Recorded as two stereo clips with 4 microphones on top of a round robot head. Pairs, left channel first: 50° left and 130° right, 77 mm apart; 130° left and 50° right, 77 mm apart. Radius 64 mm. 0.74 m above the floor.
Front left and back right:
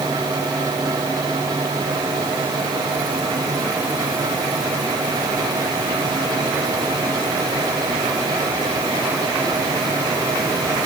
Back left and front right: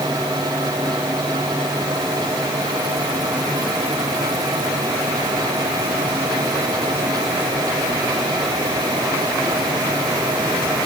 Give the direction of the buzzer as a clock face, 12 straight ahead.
No buzzer in this recording.